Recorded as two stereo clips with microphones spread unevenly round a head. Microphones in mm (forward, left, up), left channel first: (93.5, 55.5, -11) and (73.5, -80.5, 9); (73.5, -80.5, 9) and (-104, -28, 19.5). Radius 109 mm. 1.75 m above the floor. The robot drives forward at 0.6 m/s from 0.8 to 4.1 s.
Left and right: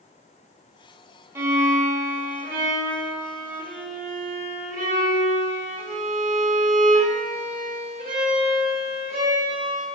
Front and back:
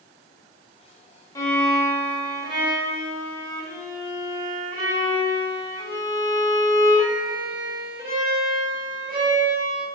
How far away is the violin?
About 0.9 m.